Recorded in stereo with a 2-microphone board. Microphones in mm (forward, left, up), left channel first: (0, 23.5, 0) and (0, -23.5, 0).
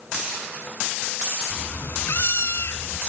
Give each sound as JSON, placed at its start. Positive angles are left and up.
{"t": 1.5, "sound": "a cat meowing", "side_deg": 45, "distance_m": 1.0}